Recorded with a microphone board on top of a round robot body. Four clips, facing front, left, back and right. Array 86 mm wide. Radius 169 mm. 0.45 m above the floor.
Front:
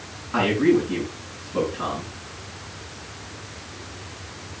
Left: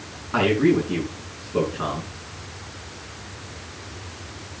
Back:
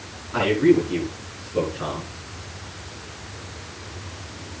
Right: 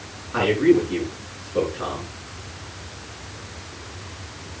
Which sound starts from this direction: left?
A man speaking, at 0.3 s.